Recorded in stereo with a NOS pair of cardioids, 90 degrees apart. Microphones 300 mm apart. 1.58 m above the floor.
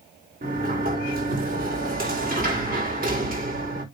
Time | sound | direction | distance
0.4 | a sliding door | 30° right | 4 m